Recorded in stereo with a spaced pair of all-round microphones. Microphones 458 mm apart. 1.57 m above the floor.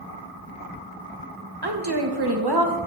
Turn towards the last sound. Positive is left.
turn(degrees=-55)  # may be behind; listen again after turning